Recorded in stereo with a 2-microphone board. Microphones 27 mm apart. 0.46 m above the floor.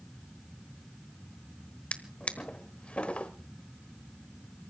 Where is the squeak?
I don't hear a squeak.